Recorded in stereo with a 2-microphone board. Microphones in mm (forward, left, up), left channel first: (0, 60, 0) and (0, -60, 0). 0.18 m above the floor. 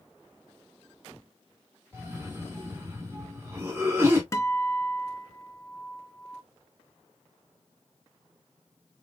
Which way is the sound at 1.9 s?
20° right (ahead or behind).